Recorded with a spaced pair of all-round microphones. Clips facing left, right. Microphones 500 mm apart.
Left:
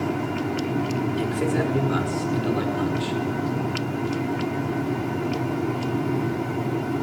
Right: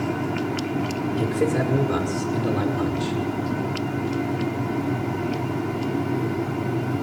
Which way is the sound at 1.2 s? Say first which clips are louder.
Right 4 dB; 65° right (ahead or behind).